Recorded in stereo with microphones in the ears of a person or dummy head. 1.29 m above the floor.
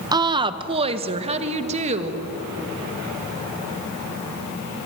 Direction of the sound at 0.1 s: 25° right (ahead or behind).